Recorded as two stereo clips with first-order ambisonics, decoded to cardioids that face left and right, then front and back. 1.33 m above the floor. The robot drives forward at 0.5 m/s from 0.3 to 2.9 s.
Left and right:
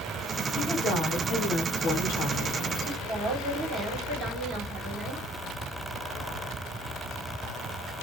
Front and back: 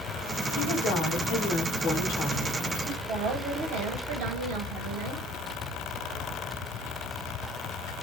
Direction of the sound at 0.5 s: 25° left.